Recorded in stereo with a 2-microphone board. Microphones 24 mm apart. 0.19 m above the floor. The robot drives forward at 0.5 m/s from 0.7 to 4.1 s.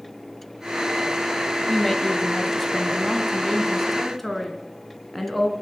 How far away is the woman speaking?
About 1.5 m.